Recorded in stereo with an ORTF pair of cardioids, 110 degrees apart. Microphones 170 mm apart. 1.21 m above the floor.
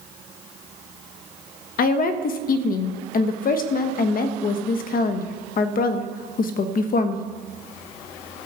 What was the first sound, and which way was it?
A woman speaking, 65° left.